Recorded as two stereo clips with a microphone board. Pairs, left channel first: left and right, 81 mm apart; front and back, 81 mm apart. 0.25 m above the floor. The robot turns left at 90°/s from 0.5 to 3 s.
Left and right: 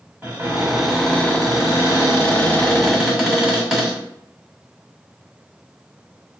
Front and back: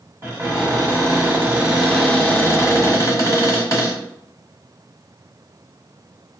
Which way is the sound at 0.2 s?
150° right.